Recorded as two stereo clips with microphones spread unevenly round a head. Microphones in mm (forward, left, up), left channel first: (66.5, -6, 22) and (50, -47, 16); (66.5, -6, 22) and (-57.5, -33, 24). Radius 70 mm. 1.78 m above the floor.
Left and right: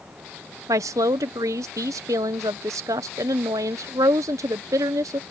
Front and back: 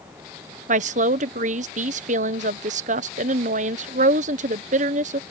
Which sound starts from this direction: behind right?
A woman speaking, at 0.7 s.